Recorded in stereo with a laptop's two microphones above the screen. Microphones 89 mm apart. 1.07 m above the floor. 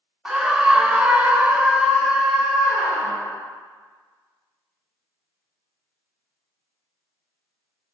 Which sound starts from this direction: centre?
A scream, at 0.2 s.